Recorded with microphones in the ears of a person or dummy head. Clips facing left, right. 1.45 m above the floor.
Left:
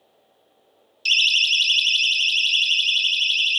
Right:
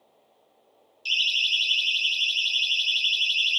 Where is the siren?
70° left (ahead or behind), 2.5 m; by 3.6 s 25° left (ahead or behind), 3.5 m.